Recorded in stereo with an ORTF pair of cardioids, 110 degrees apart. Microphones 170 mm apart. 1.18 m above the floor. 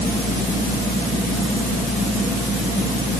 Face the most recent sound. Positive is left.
No sound to turn to.